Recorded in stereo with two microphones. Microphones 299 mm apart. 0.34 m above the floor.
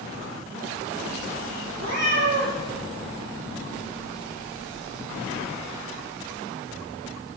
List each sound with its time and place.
1.8 s a cat meowing: 60° right (ahead or behind), 4 m